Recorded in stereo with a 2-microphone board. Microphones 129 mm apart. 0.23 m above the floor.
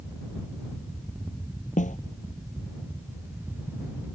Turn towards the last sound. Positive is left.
turn(degrees=75)  # may be behind; listen again after turning